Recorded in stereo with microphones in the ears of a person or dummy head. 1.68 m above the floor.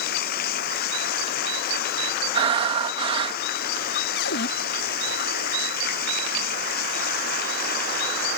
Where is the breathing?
35° right (ahead or behind).